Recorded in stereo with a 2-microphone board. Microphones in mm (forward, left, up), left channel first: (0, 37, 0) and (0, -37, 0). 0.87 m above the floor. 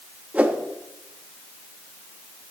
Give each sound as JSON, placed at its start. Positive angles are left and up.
{"t": 0.3, "sound": "a whoosh", "side_deg": -20, "distance_m": 0.8}